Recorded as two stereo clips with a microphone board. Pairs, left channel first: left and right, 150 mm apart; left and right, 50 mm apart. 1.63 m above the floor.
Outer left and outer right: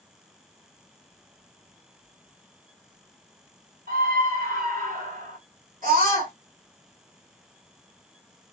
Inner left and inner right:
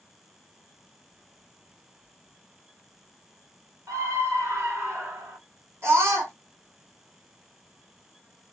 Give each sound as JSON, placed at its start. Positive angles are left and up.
{"t": 3.9, "sound": "a scream", "side_deg": -75, "distance_m": 2.5}
{"t": 5.8, "sound": "a scream", "side_deg": -65, "distance_m": 3.0}